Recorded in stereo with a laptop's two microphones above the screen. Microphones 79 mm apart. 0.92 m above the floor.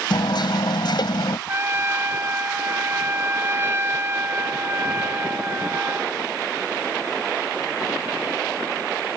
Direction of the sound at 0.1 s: 65° left (ahead or behind).